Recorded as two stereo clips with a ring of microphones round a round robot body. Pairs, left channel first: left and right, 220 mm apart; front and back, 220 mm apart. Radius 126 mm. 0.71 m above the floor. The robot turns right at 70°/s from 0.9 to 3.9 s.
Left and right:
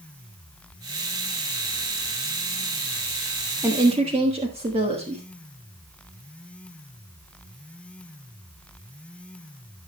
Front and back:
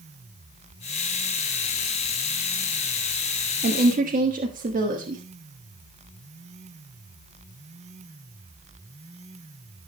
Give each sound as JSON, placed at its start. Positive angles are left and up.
{"t": 3.6, "sound": "a woman speaking", "azimuth_deg": -160, "distance_m": 1.5}